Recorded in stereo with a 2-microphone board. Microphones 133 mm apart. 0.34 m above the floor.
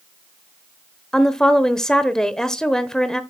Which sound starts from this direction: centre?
A woman speaking, at 1.1 s.